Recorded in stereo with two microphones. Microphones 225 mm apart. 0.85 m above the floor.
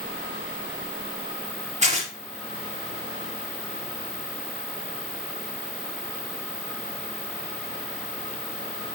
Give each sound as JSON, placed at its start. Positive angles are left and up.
{"t": 1.8, "sound": "tearing paper", "side_deg": -30, "distance_m": 3.5}